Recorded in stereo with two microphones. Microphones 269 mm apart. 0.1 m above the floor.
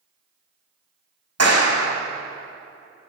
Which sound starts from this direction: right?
A clap, at 1.4 s.